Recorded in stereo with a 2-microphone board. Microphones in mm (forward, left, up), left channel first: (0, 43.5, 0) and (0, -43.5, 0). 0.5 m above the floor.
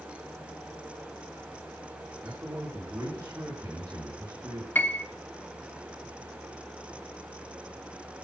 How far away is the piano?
About 1.0 m.